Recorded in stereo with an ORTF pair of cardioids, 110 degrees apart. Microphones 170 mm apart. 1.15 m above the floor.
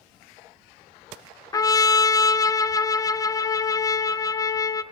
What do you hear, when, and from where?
1.5 s a trumpet: 20° left, 0.5 m